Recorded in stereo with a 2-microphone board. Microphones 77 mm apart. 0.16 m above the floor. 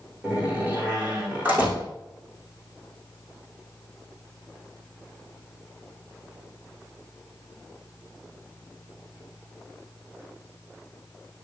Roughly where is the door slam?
Centre.